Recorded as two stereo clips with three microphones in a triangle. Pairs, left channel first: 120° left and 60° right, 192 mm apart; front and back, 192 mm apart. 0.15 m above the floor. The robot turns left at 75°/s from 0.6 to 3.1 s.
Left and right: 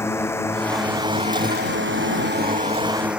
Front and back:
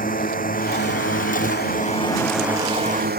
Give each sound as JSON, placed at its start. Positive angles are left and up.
{"t": 0.0, "sound": "a drone", "azimuth_deg": 45}